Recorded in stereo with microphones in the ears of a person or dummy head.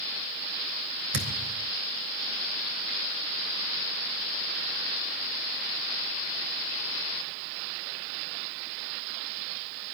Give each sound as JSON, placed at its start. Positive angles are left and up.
{"t": 1.1, "sound": "a thud", "side_deg": -75, "distance_m": 3.5}